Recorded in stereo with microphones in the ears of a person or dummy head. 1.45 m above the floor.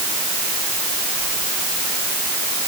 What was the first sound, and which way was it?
Only background noise.